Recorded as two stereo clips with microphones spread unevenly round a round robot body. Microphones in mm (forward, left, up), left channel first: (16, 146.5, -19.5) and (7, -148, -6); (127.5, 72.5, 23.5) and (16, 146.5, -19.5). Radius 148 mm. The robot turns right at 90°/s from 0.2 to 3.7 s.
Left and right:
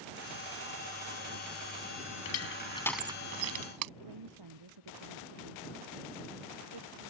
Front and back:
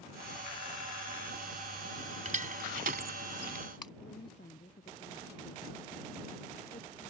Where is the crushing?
115° left; by 3.9 s 115° right.